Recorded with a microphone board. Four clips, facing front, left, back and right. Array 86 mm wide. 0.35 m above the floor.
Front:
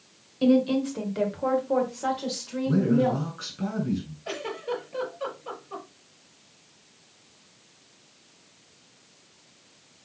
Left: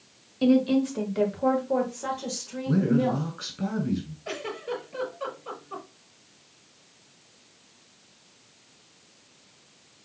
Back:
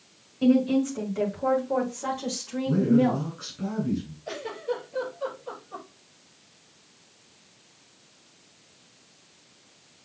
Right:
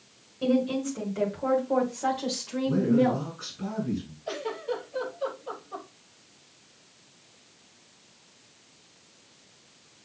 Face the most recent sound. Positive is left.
turn(degrees=50)